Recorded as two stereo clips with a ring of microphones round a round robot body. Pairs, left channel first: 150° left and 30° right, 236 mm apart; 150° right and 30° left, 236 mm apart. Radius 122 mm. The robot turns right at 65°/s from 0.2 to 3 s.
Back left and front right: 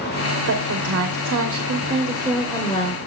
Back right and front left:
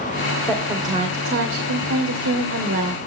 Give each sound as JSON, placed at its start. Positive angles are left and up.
{"t": 0.5, "sound": "a woman speaking", "azimuth_deg": -70, "distance_m": 2.5}